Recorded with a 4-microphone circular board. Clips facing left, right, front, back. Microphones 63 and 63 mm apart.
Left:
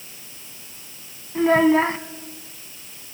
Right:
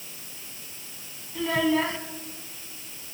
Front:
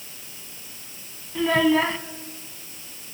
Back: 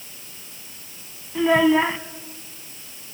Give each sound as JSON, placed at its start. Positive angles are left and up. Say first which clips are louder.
{"t": 1.4, "sound": "a child speaking", "louder": "left 8 dB, back 3 dB", "azimuth_deg": 110, "distance_m": 0.8}